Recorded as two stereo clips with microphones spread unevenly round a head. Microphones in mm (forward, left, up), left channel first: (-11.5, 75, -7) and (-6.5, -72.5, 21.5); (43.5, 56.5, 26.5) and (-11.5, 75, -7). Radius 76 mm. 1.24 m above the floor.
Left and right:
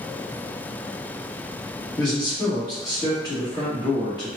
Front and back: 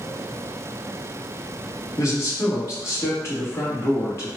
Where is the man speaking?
30° left, 1.7 m.